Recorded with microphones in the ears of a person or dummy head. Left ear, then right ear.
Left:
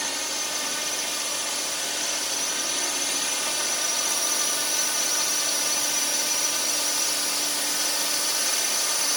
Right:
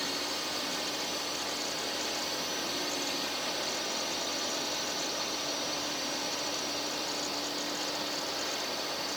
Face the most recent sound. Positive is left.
turn(degrees=55)  # may be behind; listen again after turning